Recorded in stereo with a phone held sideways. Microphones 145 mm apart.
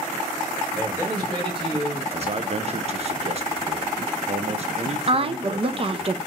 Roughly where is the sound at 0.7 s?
Right.